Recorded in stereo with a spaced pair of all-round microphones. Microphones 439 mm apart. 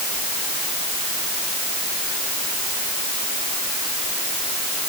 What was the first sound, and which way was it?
Only background noise.